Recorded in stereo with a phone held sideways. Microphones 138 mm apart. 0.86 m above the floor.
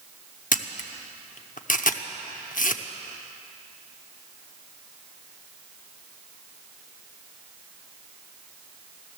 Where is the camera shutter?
75° left (ahead or behind), 0.7 m.